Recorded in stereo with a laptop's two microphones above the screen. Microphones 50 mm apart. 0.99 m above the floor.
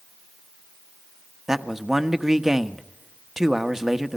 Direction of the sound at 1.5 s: 5° right (ahead or behind).